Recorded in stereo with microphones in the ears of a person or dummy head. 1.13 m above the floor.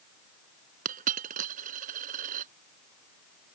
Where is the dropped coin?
50° right (ahead or behind).